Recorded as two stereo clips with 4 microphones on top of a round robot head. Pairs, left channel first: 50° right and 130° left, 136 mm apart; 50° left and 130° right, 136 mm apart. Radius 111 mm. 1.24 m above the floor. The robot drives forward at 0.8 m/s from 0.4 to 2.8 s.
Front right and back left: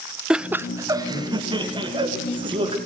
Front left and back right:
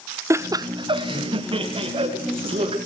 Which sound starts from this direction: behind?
Laughter, at 0.3 s.